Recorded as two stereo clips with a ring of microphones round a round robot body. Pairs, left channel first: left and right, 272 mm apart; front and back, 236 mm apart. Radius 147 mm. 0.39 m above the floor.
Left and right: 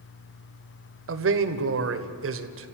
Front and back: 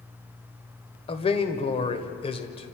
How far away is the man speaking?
About 1.6 m.